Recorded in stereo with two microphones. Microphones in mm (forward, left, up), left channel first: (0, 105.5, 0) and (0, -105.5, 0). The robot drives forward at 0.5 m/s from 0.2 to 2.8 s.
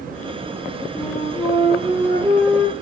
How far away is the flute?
About 3 m.